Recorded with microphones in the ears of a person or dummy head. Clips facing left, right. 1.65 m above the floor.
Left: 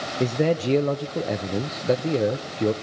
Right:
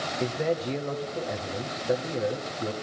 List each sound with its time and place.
0.2 s a man speaking: 45° left (ahead or behind), 0.9 m